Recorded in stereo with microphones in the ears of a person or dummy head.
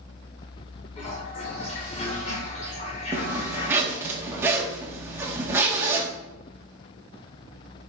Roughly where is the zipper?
Centre.